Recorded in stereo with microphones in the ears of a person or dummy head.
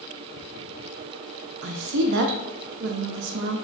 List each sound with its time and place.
1.6 s a woman speaking: 60° right (ahead or behind), 0.6 m